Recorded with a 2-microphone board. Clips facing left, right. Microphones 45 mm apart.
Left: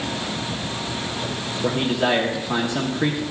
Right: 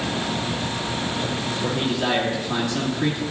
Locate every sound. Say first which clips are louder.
1.6 s a man speaking: left 4 dB; 15° left (ahead or behind), 1.3 m